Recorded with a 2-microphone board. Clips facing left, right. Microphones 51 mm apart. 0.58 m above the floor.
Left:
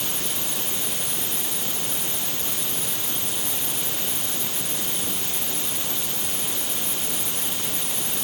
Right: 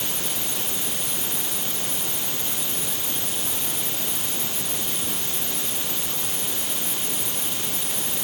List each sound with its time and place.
Only background noise.